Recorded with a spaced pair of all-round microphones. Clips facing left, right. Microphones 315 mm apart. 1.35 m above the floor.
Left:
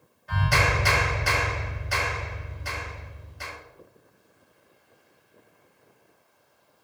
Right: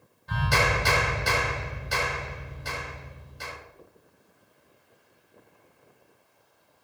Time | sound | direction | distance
0.3 | a clap | 45° right (ahead or behind) | 5 m